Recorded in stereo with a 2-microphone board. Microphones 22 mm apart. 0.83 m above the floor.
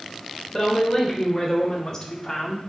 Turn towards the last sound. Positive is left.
turn(degrees=20)  # may be behind; listen again after turning